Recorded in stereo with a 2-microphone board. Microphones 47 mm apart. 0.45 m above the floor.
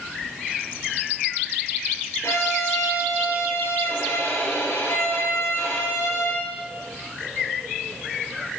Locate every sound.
2.2 s a violin: 85° left, 3 m